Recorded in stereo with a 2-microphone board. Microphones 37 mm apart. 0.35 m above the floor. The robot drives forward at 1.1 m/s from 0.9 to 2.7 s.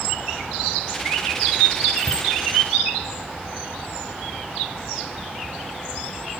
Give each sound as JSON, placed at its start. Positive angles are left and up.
{"t": 2.0, "sound": "a bicycle bell", "side_deg": 55, "distance_m": 7.5}